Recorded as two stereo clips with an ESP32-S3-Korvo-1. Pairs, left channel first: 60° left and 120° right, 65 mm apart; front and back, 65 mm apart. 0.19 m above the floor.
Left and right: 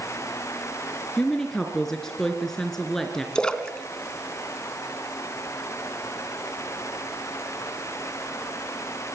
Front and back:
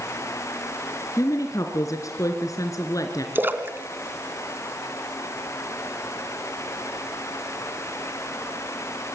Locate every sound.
1.2 s a woman speaking: 20° right, 2.5 m
3.4 s a splash: 130° left, 2 m